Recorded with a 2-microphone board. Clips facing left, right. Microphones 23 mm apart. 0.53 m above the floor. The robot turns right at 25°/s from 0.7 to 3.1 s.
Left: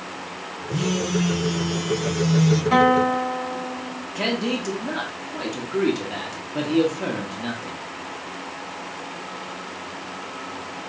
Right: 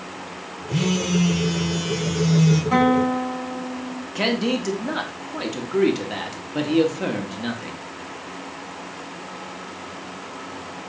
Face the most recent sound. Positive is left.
turn(degrees=-20)  # may be behind; listen again after turning